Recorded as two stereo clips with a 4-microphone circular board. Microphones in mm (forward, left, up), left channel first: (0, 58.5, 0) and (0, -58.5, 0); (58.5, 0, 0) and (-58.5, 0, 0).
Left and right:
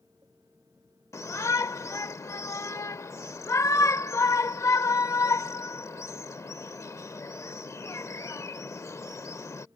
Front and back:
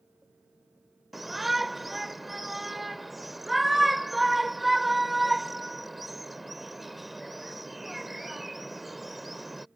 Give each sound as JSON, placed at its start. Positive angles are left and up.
{"t": 1.1, "sound": "a shout", "azimuth_deg": 90}